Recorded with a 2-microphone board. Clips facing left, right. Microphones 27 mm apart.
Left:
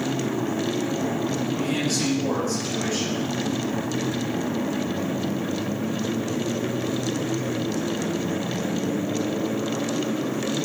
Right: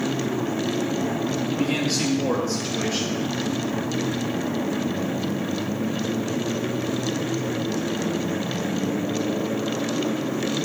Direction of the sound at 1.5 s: 30° right (ahead or behind).